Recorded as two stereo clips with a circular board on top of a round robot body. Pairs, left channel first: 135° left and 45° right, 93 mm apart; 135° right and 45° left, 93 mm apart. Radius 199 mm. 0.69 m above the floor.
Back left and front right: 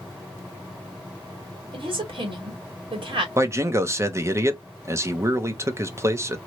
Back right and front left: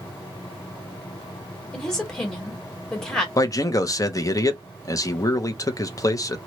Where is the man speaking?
95° right, 1.0 m.